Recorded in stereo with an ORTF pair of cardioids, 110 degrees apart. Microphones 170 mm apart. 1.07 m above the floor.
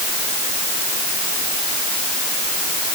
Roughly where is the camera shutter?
No camera shutter in this recording.